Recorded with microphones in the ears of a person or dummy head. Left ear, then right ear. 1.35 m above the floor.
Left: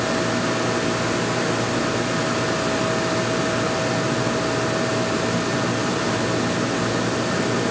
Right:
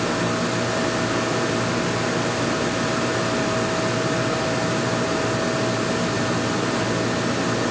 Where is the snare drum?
No snare drum in this recording.